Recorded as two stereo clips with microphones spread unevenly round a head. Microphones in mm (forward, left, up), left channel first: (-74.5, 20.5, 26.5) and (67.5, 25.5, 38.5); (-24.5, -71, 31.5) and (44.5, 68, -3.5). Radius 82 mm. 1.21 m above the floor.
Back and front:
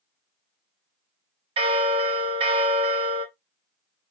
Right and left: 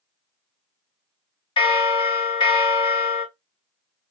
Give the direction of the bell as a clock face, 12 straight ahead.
2 o'clock.